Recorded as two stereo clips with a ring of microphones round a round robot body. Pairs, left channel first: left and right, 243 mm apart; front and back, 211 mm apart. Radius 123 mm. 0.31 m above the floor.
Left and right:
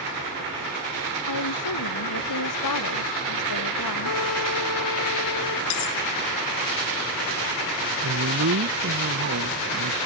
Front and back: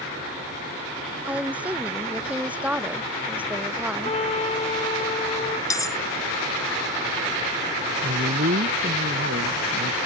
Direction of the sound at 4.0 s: 60° left.